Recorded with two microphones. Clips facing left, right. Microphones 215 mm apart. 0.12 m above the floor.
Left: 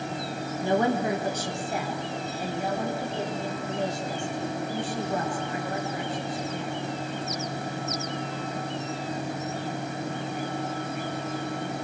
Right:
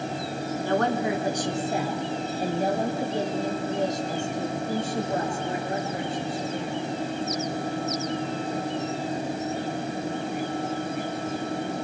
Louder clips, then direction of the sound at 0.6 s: Left 1 dB; 20° left (ahead or behind).